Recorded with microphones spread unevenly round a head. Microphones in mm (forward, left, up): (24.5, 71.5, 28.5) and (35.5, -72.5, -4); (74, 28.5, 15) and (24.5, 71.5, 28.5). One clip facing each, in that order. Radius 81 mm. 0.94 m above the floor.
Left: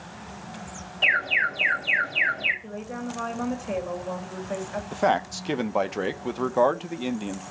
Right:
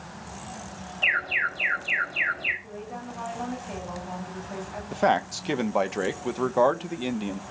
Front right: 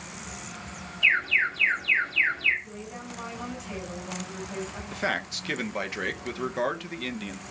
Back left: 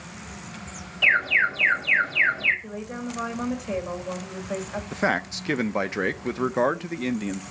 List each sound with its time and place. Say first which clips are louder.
1.0 s an alarm: left 4 dB, back left 3 dB; 155° left, 7 m
2.6 s a woman speaking: left 5 dB, back left 6 dB; 130° left, 5.5 m
4.9 s a man speaking: even, back left 5 dB; 155° right, 0.7 m